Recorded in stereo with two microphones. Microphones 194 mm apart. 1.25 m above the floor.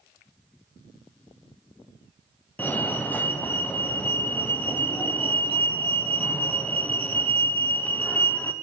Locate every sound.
2.6 s a fire alarm: 10° left (ahead or behind), 0.9 m